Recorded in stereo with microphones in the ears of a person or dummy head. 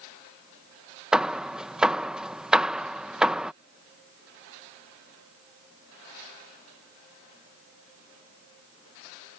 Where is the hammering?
10° right (ahead or behind).